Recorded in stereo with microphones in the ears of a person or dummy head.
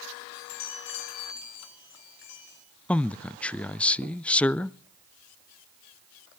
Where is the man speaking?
5° left (ahead or behind), 0.5 m.